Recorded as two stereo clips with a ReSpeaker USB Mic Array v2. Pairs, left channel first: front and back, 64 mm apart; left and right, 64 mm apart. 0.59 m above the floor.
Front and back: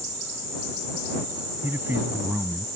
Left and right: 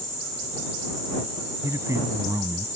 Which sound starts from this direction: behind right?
A man speaking, at 1.6 s.